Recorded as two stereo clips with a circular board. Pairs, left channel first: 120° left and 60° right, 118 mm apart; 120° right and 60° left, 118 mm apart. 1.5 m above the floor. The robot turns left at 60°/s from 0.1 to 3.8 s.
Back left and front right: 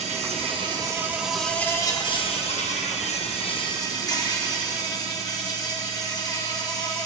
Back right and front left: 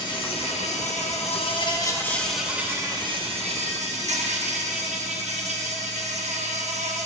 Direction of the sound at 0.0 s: 75° right.